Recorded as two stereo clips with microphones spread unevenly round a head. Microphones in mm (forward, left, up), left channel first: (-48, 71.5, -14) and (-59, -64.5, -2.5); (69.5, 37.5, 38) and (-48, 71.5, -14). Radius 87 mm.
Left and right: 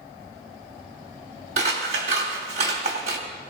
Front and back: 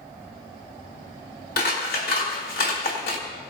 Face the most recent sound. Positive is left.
turn(degrees=-40)